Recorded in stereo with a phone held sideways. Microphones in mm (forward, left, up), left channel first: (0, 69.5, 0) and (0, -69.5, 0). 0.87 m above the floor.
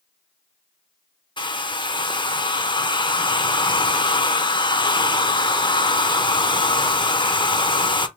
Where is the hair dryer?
35° left (ahead or behind), 0.6 m.